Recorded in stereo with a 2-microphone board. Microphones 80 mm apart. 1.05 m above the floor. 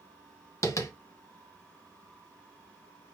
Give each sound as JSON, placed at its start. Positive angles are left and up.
{"t": 0.6, "sound": "tapping", "side_deg": 40, "distance_m": 1.0}